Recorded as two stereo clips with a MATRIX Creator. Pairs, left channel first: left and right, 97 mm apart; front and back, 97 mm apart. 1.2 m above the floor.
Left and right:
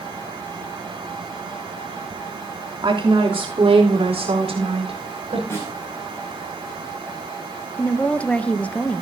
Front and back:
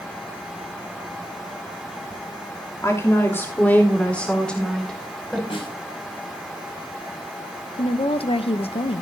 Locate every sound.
2.8 s a woman speaking: 60° right, 3 m; by 5.4 s 90° right, 5.5 m
5.5 s a snare drum: 25° left, 6.5 m
7.8 s a woman speaking: 15° left, 0.8 m